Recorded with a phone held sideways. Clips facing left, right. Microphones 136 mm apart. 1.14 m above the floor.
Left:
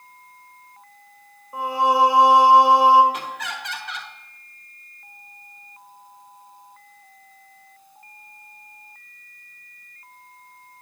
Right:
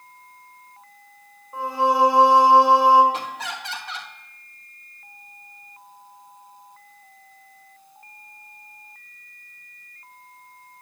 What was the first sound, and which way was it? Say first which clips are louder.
Singing: left 1 dB; 15° left (ahead or behind).